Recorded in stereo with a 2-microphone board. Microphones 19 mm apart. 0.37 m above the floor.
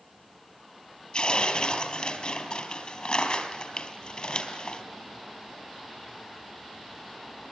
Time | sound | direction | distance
1.1 | tearing paper | 55° left (ahead or behind) | 4 m